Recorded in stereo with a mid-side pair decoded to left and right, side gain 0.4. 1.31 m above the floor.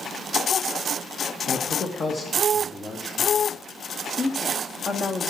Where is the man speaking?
60° left, 1.5 m; by 3.5 s 35° left, 3.5 m.